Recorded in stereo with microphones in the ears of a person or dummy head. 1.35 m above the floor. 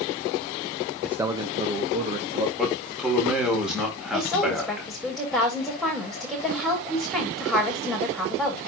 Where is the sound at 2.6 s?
Centre (ahead or behind), 3.5 m.